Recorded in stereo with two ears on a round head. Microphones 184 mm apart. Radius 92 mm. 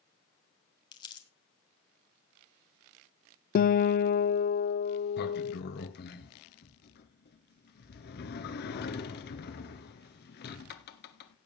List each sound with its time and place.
0.9 s crumpling: 25° left (ahead or behind), 1.8 m
3.5 s a guitar: 45° left (ahead or behind), 0.5 m
5.2 s a sliding door: 55° left (ahead or behind), 1.2 m